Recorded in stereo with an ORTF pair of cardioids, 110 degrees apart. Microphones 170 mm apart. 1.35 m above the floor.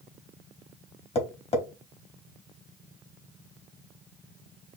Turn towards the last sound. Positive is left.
turn(degrees=35)